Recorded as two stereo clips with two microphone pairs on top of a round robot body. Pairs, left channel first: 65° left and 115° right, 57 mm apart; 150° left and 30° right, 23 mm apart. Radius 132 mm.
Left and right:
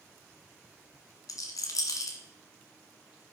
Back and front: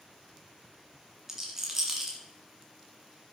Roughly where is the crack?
I don't hear a crack.